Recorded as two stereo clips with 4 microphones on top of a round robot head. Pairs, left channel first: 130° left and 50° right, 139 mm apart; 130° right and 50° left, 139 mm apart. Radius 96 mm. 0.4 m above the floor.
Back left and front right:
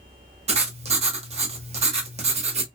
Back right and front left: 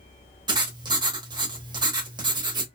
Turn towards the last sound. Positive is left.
turn(degrees=-10)